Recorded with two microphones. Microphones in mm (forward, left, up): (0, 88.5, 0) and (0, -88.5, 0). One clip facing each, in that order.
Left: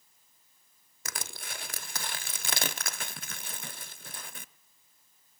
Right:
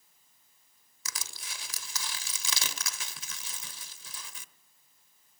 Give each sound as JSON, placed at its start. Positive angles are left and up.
{"t": 1.1, "sound": "crushing", "side_deg": 55, "distance_m": 0.8}